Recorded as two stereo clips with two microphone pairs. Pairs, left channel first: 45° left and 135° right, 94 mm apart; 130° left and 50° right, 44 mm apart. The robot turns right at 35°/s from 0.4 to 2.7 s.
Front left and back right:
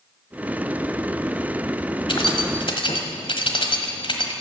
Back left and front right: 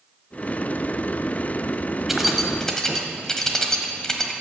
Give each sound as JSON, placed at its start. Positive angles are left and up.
{"t": 2.1, "sound": "keys jangling", "azimuth_deg": 35, "distance_m": 1.4}